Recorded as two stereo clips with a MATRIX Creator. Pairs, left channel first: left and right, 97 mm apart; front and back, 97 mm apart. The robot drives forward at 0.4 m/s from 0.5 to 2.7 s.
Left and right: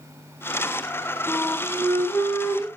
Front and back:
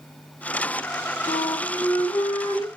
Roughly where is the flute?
Ahead left.